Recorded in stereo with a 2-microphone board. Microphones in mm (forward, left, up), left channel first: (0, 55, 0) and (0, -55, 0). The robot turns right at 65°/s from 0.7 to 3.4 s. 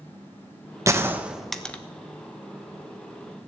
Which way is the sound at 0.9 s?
30° right (ahead or behind).